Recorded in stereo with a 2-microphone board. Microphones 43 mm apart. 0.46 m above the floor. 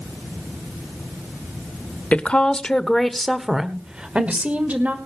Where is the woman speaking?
30° left (ahead or behind), 1.5 m; by 5.0 s 40° right (ahead or behind), 1.9 m.